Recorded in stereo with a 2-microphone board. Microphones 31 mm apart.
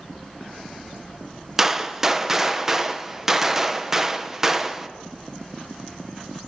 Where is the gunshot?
15° right (ahead or behind), 0.7 m.